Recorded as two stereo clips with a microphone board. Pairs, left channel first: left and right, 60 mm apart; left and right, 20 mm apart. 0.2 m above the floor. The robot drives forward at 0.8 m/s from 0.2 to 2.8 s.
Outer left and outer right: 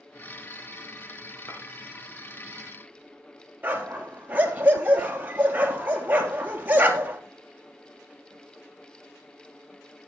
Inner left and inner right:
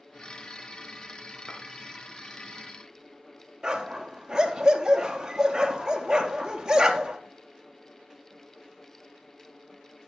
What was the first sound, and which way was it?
A clink, 50° left (ahead or behind).